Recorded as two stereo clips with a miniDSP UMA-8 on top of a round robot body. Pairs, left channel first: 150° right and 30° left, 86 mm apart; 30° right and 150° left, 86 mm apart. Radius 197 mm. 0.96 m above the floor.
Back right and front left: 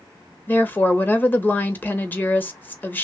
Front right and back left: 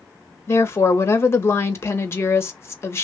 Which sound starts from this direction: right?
A woman speaking, at 0.5 s.